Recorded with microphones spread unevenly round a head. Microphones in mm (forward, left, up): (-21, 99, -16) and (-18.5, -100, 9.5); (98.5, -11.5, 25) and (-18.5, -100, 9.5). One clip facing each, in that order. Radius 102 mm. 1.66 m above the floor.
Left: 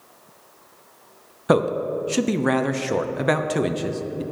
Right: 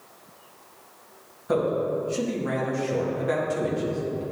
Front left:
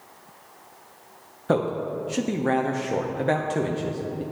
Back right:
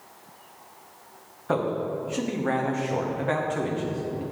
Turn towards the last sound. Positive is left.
turn(degrees=100)